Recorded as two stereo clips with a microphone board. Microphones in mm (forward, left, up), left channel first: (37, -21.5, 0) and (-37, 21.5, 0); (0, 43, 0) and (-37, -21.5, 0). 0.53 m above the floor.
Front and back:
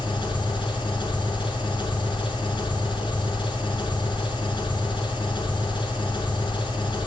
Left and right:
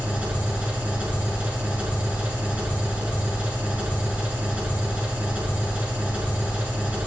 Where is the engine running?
50° right, 5.5 m.